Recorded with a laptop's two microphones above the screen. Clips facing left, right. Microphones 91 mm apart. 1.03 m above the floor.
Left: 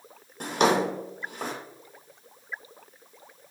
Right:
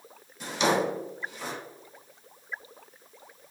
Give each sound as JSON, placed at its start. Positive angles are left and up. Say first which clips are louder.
{"t": 0.4, "sound": "a drawer", "louder": "left 3 dB", "side_deg": 50, "distance_m": 0.7}